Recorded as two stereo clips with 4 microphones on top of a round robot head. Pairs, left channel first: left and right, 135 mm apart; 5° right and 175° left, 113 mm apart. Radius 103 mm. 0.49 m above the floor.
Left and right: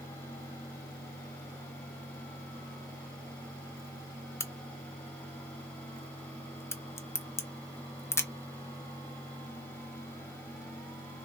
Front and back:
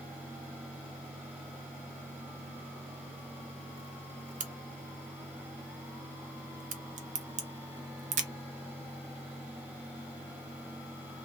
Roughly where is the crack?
Behind.